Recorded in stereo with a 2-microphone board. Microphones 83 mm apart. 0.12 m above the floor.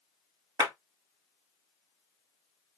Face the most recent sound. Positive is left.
turn(degrees=-50)  # may be behind; listen again after turning